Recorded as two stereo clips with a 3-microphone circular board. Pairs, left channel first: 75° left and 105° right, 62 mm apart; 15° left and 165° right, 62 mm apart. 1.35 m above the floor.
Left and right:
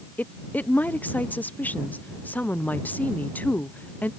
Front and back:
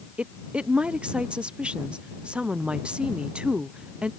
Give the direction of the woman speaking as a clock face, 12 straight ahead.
8 o'clock.